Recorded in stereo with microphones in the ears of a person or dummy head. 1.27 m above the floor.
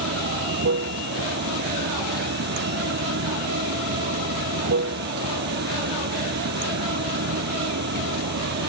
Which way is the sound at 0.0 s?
55° right (ahead or behind).